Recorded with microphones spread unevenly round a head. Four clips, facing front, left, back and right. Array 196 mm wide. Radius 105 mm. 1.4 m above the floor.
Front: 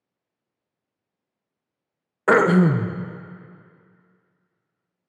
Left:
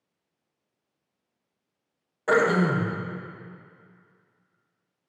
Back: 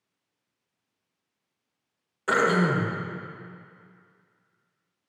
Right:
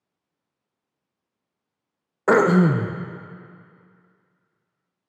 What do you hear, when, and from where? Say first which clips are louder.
2.3 s throat clearing: right 5 dB, front 6 dB; 60° right, 0.7 m